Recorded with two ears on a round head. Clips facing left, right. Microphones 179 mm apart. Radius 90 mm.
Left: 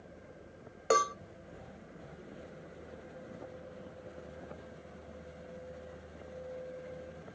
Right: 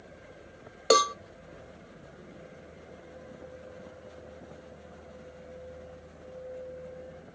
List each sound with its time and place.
0.9 s a cowbell: 45° right (ahead or behind), 0.6 m